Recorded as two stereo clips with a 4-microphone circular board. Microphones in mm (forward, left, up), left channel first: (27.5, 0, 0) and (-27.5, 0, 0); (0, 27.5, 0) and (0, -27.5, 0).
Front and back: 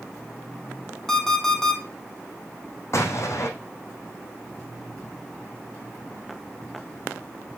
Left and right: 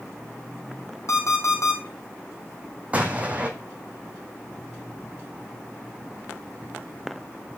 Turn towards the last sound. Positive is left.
turn(degrees=-30)